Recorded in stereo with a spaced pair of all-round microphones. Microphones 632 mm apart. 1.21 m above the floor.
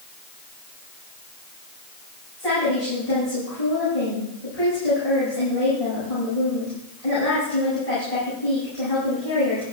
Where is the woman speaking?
70° left (ahead or behind), 8 m.